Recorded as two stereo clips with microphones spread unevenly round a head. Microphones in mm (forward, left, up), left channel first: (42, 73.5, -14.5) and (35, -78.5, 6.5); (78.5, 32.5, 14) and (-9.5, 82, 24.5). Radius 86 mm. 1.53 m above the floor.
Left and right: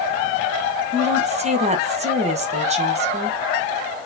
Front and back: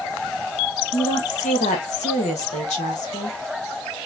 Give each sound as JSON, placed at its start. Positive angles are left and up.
{"t": 0.9, "sound": "a woman speaking", "azimuth_deg": -50, "distance_m": 1.4}